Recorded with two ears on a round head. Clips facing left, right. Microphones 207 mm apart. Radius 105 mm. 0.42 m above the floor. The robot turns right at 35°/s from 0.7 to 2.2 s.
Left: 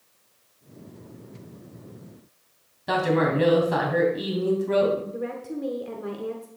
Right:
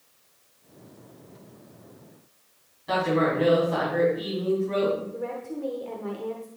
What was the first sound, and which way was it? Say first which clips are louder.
A man speaking: left 1 dB; 70° left (ahead or behind).